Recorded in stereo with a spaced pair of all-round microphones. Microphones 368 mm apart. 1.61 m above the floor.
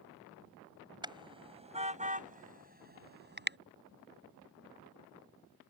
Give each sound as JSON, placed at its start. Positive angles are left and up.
{"t": 1.0, "sound": "a car horn", "side_deg": -10}